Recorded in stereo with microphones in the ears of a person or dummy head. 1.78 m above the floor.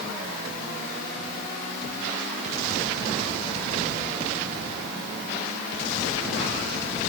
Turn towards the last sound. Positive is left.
No sound to turn to.